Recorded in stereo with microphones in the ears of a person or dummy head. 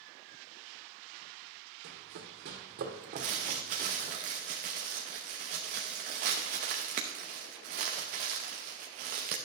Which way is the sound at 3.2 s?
30° right (ahead or behind).